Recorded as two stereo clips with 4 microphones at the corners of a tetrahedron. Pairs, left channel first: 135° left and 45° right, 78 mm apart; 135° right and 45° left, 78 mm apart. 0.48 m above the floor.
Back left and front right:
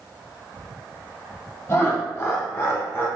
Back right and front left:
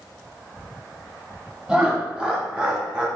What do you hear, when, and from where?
1.7 s laughter: 115° left, 0.9 m